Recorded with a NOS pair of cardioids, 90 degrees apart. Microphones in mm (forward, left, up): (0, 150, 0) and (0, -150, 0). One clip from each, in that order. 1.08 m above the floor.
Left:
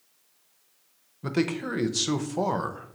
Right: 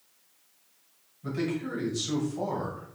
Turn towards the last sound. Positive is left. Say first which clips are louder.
# left 4 dB
turn(degrees=60)